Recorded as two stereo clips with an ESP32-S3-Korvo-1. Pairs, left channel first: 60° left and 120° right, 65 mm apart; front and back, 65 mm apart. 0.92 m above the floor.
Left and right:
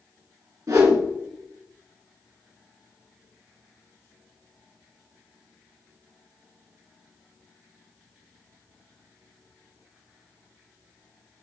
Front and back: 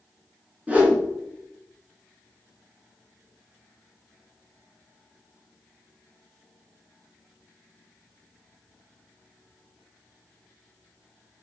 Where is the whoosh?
115° right, 2 m.